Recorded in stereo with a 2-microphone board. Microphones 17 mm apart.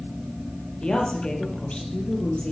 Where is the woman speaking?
75° left (ahead or behind), 4 m.